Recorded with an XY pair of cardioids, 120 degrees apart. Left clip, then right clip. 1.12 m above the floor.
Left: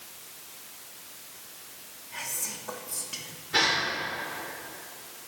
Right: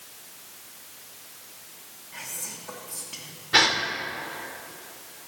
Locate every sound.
2.1 s whispering: 15° left, 1.6 m
3.5 s a gasp: 45° right, 1.6 m